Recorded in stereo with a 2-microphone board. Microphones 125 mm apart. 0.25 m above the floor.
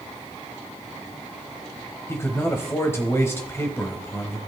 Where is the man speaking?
20° left (ahead or behind), 1.1 m.